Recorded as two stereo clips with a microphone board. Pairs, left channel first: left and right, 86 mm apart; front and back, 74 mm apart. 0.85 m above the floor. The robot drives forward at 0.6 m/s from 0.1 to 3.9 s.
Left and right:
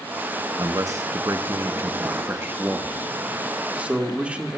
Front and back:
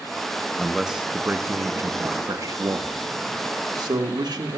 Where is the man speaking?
85° right, 0.9 m; by 4.6 s 165° right, 2 m.